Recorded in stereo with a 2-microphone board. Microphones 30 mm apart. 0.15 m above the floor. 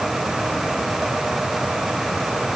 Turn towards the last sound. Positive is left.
No sound to turn to.